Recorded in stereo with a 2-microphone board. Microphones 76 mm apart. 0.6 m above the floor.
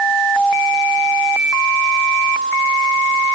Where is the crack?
No crack in this recording.